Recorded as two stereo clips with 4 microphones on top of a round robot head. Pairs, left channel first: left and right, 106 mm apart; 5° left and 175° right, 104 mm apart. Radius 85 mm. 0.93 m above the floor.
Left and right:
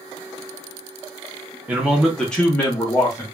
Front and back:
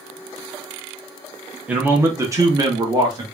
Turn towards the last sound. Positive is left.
turn(degrees=145)